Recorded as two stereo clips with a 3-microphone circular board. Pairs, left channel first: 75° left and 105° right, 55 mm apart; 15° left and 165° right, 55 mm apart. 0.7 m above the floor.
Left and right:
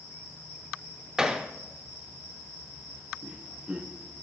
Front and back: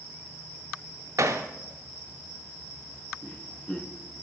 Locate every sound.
1.2 s hammering: 175° left, 0.5 m
3.2 s laughter: 50° right, 0.5 m